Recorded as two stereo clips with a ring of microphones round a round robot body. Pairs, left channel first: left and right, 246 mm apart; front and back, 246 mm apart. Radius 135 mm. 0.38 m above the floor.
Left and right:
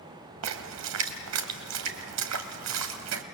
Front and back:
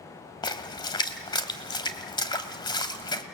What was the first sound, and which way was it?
A splash, 70° right.